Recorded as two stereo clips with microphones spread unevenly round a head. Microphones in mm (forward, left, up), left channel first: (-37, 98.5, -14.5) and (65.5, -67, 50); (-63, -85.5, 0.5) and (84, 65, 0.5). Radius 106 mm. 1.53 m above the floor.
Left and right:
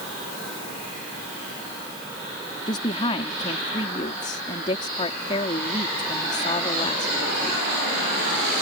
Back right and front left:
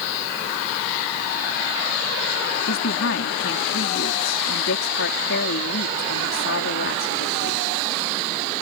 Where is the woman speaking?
170° right.